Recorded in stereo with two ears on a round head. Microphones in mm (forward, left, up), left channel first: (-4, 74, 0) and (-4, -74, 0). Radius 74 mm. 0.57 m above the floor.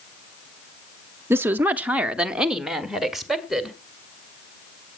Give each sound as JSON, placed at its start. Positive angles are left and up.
{"t": 1.3, "sound": "a woman speaking", "side_deg": -15, "distance_m": 0.6}